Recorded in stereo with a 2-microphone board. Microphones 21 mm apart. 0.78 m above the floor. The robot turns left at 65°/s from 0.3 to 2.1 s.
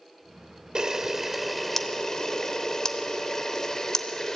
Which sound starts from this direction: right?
A camera shutter, at 0.8 s.